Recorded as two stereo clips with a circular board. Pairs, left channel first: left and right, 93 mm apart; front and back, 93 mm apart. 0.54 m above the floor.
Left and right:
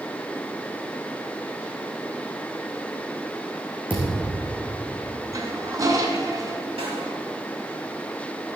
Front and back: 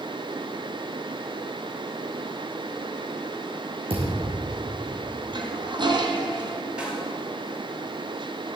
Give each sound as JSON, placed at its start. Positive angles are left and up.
{"t": 3.9, "sound": "a thud", "azimuth_deg": -165, "distance_m": 5.0}
{"t": 5.3, "sound": "a toilet flushing", "azimuth_deg": -145, "distance_m": 1.7}
{"t": 6.8, "sound": "a snare drum", "azimuth_deg": -100, "distance_m": 4.5}